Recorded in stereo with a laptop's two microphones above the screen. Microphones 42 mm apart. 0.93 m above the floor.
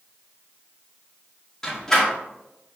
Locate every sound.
1.6 s a door slam: 10° left (ahead or behind), 1.6 m